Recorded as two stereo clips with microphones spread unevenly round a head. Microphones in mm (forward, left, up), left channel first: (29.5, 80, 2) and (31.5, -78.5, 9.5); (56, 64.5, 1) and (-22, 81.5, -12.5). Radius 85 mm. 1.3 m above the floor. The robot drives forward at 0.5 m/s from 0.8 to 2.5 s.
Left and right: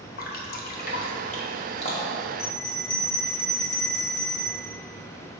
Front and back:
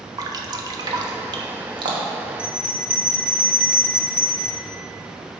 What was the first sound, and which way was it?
Dripping, 130° left.